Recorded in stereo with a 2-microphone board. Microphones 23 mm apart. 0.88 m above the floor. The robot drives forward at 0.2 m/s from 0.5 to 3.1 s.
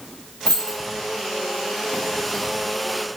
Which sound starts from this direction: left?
Keys jangling, at 0.5 s.